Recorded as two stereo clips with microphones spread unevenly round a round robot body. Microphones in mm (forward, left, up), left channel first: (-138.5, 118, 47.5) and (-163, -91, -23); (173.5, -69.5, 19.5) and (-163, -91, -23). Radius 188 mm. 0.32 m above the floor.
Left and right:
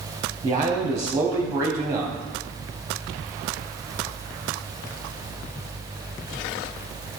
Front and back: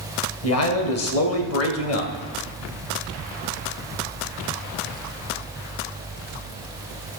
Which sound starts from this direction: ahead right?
A man speaking, at 0.4 s.